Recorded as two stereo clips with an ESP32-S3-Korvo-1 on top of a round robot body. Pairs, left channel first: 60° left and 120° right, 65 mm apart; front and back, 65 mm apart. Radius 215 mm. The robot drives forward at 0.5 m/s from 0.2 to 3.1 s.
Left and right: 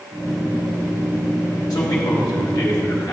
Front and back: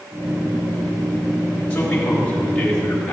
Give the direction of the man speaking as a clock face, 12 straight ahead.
10 o'clock.